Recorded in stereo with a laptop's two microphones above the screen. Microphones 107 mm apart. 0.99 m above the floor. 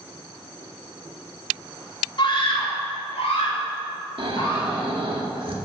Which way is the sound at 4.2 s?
60° right (ahead or behind).